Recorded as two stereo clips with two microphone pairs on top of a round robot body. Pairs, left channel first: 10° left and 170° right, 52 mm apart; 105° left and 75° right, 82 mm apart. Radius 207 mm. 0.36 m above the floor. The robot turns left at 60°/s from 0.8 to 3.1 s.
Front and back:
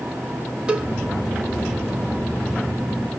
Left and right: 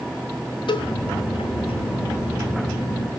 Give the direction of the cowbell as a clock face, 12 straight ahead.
8 o'clock.